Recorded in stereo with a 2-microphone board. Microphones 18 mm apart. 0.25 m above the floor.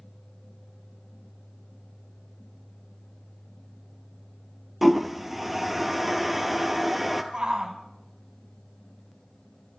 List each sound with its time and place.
4.8 s a toilet flushing: 15° right (ahead or behind), 0.9 m
7.3 s a shout: 40° right (ahead or behind), 1.6 m